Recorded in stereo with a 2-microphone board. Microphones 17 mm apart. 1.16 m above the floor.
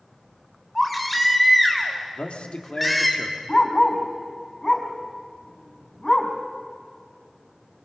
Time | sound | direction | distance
0.8 | a baby crying | 5° left (ahead or behind) | 3 m
2.1 | a man speaking | 80° left | 2.5 m
3.5 | a dog barking | 15° left (ahead or behind) | 4.5 m